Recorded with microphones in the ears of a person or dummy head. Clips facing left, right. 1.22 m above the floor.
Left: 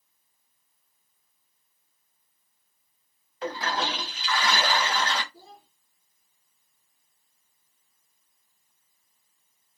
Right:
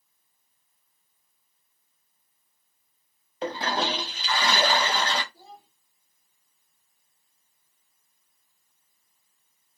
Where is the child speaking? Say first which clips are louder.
Right 1 dB; 60° left (ahead or behind), 1.3 m.